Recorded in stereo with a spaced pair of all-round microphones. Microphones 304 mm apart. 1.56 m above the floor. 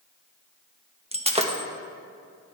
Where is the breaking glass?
20° right (ahead or behind), 0.9 m.